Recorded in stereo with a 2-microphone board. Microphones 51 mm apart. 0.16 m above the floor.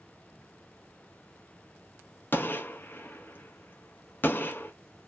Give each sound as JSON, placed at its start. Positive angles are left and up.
{"t": 2.3, "sound": "a gunshot", "side_deg": 35, "distance_m": 0.5}